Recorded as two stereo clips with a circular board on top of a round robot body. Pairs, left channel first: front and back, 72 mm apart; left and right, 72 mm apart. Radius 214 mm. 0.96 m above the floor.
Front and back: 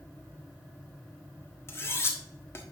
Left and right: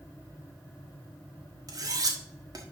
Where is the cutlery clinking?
55° right, 1.5 m.